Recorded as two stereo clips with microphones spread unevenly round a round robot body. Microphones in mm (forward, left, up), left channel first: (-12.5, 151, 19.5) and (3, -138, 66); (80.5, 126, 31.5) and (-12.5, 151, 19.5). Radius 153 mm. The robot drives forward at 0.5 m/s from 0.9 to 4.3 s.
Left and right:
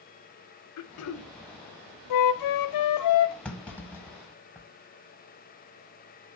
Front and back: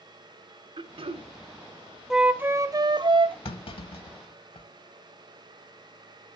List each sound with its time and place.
0.8 s throat clearing: 130° left, 0.7 m; by 1.3 s 140° left, 0.8 m
2.1 s a flute: 80° left, 0.6 m; by 3.4 s 130° left, 0.8 m
3.5 s a clunk: 5° left, 1.4 m; by 4.7 s 10° left, 1.0 m